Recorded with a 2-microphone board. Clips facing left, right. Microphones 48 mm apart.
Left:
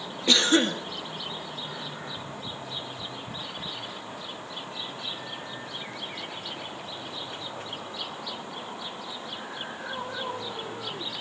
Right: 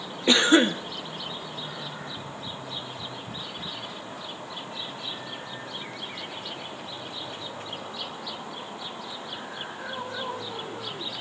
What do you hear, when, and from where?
0.3 s a cough: 20° right (ahead or behind), 1.1 m